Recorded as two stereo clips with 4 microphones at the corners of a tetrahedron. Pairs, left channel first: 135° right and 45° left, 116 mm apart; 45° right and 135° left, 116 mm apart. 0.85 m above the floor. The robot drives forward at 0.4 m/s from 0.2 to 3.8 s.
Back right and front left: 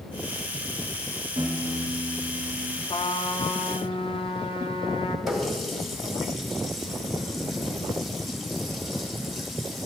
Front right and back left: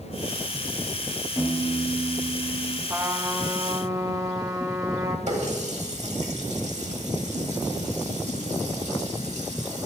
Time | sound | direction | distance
1.4 | a piano | 20° left | 1.1 m
2.9 | a trumpet | 160° right | 0.5 m
5.3 | a running tap | 135° left | 1.3 m